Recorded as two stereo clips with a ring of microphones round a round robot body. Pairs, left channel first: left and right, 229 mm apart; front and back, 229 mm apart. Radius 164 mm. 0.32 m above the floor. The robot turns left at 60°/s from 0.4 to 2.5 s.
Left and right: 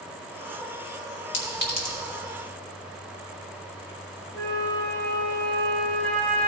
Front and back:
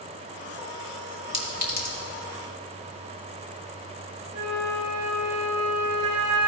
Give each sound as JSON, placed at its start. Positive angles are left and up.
{"t": 1.3, "sound": "a clink", "azimuth_deg": 65, "distance_m": 2.5}
{"t": 4.3, "sound": "a flute", "azimuth_deg": 170, "distance_m": 2.0}